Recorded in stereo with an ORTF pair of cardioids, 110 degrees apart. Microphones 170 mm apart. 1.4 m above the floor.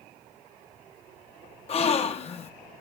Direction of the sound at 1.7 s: 40° left.